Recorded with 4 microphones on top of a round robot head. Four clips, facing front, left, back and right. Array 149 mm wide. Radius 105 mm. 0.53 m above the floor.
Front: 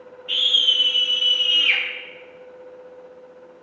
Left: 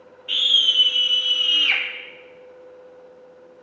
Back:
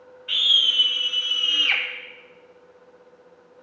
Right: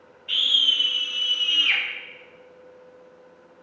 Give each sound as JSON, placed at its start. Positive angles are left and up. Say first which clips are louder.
{"t": 0.3, "sound": "a scream", "louder": "left 2 dB, front 1 dB", "azimuth_deg": 170, "distance_m": 3.0}